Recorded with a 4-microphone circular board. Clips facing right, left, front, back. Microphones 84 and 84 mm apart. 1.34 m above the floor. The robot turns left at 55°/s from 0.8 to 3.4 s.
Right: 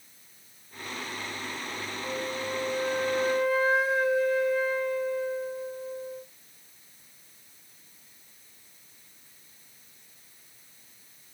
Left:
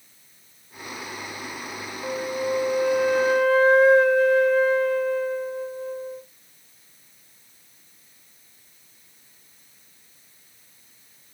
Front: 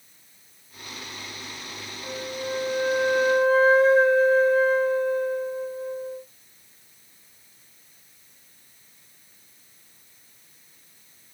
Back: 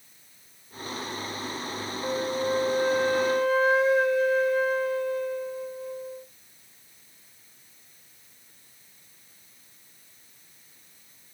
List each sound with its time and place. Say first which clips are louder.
2.0 s a flute: left 8 dB, back 5 dB; 135° left, 1.0 m; by 6.2 s 55° left, 1.0 m